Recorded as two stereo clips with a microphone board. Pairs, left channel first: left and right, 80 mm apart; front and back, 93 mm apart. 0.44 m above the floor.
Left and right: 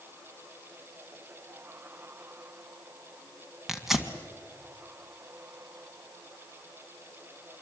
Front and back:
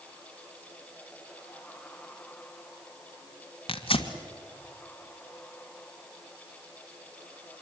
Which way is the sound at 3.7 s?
5° right.